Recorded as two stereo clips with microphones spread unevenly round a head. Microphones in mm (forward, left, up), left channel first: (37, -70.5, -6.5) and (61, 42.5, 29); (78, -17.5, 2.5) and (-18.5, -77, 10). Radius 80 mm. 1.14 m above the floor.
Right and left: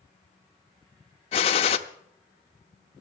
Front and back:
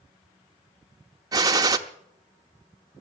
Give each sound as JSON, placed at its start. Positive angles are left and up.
{"t": 1.3, "sound": "a gunshot", "azimuth_deg": -140, "distance_m": 0.8}